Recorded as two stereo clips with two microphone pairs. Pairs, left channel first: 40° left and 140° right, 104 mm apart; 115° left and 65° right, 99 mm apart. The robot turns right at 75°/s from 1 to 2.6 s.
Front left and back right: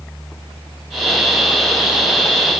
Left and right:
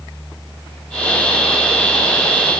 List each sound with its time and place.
Only background noise.